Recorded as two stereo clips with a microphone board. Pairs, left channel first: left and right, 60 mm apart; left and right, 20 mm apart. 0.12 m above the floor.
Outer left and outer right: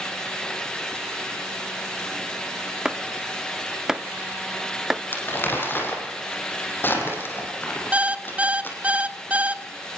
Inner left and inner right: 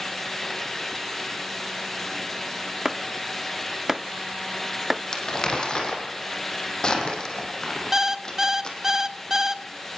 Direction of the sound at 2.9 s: 10° right (ahead or behind).